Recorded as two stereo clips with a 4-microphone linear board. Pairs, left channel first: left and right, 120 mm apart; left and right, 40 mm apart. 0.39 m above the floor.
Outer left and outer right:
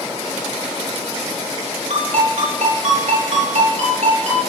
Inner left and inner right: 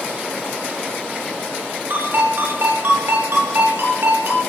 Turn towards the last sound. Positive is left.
turn(degrees=-70)  # may be behind; listen again after turning